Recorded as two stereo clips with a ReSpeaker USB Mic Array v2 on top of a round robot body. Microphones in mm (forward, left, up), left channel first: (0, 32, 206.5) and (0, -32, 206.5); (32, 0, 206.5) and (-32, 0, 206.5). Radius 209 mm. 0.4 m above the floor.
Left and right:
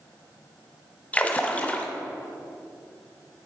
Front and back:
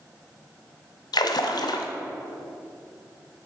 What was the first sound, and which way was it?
A splash, 20° left.